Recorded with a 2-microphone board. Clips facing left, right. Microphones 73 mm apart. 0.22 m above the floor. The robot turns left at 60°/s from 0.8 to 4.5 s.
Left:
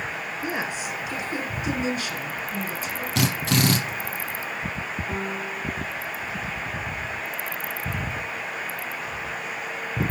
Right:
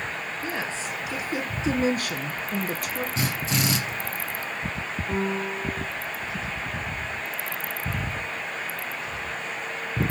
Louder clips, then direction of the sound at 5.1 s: Right 6 dB; 10° right (ahead or behind).